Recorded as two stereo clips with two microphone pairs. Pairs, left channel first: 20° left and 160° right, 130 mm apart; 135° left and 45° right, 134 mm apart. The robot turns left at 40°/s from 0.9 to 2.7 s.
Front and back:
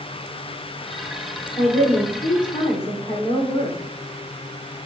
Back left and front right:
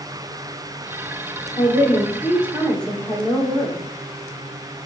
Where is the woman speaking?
100° left, 3.5 m; by 3.8 s 55° left, 3.5 m.